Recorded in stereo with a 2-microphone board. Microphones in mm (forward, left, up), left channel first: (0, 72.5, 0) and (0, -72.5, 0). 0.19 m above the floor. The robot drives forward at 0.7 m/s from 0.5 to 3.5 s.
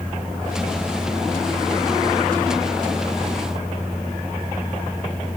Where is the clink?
I don't hear a clink.